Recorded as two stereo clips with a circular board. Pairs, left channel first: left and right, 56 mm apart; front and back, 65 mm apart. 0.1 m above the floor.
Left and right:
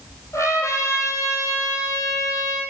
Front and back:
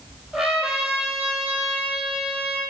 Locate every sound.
0.3 s a trumpet: 90° left, 2 m